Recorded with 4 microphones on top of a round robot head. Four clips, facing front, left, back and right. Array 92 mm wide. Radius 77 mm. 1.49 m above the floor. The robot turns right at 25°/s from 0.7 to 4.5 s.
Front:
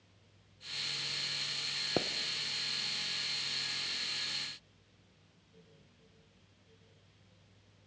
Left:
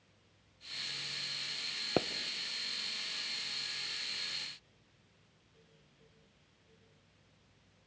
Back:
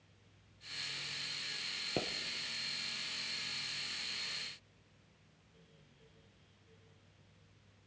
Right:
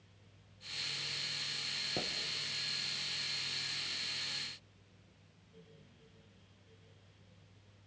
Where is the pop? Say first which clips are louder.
Left 9 dB, front 4 dB; 65° left, 0.6 m; by 2.1 s 70° left, 0.6 m.